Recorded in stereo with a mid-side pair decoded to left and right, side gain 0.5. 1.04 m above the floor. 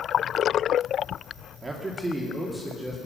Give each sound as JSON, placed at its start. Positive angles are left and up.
{"t": 1.6, "sound": "a man speaking", "azimuth_deg": -25, "distance_m": 2.5}